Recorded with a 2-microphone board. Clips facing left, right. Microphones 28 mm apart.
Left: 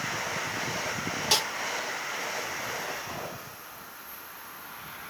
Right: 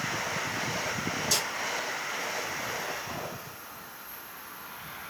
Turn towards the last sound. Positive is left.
turn(degrees=60)  # may be behind; listen again after turning